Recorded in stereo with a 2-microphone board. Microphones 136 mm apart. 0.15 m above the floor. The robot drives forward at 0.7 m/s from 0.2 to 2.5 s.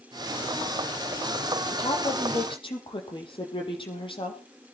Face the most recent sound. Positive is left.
turn(degrees=40)  # may be behind; listen again after turning